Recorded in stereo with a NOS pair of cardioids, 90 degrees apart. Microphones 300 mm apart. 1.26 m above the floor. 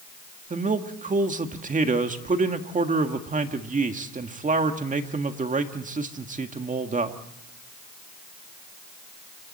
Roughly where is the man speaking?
Ahead right.